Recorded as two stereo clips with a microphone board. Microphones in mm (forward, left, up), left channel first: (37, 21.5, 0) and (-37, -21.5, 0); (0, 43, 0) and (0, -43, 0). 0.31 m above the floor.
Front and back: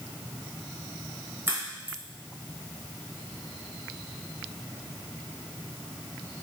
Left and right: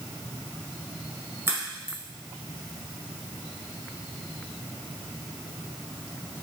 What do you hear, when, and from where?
1.5 s a crack: 115° right, 1.4 m